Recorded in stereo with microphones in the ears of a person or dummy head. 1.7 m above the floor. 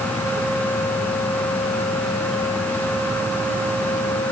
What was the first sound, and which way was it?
Only background noise.